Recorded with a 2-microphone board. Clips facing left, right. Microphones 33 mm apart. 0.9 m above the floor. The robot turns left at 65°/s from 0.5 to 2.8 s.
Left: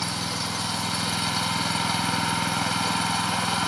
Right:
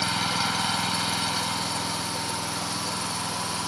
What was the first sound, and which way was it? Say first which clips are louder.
An engine running: right 3 dB; 140° right.